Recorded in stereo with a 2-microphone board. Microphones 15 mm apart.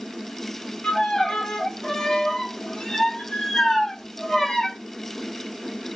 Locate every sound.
0.8 s a violin: 55° left (ahead or behind), 1.6 m